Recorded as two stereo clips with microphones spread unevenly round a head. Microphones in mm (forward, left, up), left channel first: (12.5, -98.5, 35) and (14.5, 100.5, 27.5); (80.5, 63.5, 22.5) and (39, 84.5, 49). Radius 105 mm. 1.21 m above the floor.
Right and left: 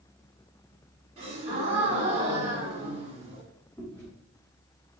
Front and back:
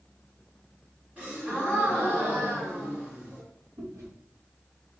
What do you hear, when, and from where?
1.2 s a gasp: 145° left, 1.5 m
3.8 s chewing: 170° right, 1.1 m